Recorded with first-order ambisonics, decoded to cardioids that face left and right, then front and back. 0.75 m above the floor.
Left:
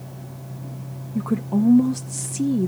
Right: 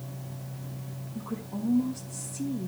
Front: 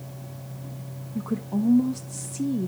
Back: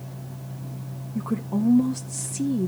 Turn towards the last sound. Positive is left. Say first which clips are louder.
# left 13 dB, back 1 dB
turn(degrees=105)